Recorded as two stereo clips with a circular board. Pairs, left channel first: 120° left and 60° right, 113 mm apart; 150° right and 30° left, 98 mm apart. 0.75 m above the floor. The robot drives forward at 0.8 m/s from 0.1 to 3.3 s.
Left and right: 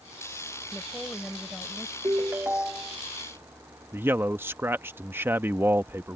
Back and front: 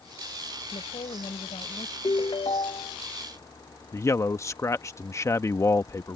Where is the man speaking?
115° right.